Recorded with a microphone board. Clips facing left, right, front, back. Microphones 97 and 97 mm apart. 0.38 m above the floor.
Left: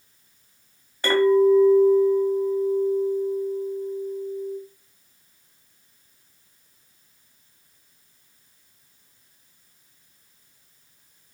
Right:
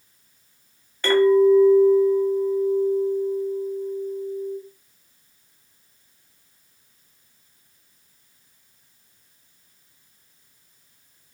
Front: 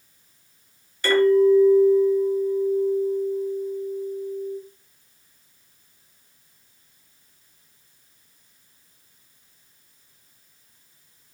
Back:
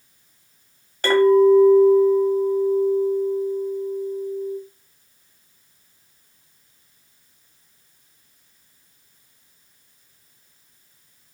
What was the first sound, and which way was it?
A clink, 160° left.